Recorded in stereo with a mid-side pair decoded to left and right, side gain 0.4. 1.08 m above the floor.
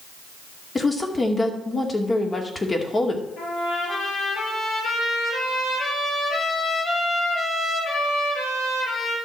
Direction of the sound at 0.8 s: 25° left.